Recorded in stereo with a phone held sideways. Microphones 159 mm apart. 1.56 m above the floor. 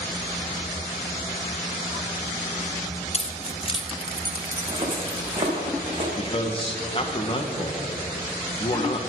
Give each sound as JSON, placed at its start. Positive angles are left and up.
{"t": 3.1, "sound": "keys jangling", "side_deg": 45, "distance_m": 1.0}
{"t": 4.5, "sound": "footsteps", "side_deg": -20, "distance_m": 4.5}
{"t": 6.2, "sound": "a man speaking", "side_deg": 35, "distance_m": 1.3}